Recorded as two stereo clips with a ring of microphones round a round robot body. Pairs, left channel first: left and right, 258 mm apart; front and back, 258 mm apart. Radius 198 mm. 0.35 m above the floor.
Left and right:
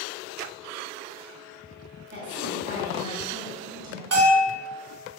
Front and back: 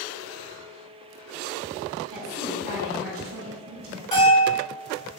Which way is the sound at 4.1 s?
70° right.